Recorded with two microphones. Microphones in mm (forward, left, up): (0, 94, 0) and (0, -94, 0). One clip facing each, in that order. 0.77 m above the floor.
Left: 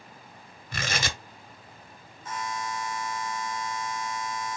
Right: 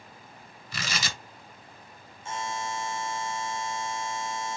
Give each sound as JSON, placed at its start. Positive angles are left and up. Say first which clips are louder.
{"t": 0.7, "sound": "tearing paper", "louder": "left 4 dB", "side_deg": 55, "distance_m": 1.3}
{"t": 2.2, "sound": "a buzzer", "louder": "even", "side_deg": -25, "distance_m": 0.5}